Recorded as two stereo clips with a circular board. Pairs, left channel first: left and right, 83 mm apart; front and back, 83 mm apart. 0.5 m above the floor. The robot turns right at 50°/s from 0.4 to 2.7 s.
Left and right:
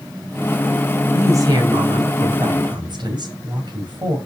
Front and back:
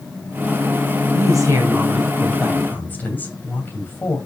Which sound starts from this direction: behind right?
A woman speaking, at 1.1 s.